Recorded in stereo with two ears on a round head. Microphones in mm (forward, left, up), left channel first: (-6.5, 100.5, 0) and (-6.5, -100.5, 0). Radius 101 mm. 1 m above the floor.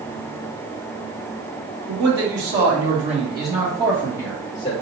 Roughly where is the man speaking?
Right.